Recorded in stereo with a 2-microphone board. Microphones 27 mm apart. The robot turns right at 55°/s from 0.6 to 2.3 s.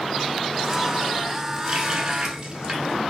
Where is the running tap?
20° right (ahead or behind), 0.8 m; by 3.0 s 30° right (ahead or behind), 0.8 m.